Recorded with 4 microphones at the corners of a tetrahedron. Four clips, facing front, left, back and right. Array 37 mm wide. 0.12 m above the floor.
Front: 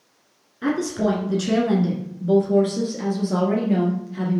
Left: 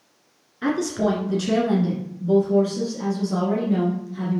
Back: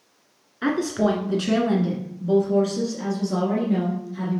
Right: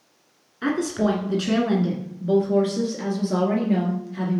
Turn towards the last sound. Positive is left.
turn(degrees=-50)